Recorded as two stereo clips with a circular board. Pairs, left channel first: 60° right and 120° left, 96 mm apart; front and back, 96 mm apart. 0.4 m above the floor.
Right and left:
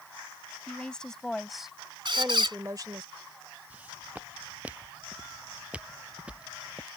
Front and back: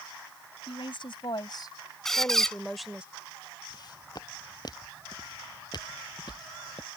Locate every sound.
0.7 s a woman speaking: 20° left; by 3.0 s 105° left
2.0 s a squeak: 85° left
3.7 s footsteps: 45° left; by 6.9 s 40° left